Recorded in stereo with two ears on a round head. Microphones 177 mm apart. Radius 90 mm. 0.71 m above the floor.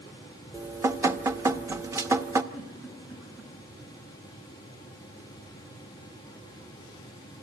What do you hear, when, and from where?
0.5 s dripping: 15° right (ahead or behind), 0.7 m
2.5 s a giggle: 10° right (ahead or behind), 8.5 m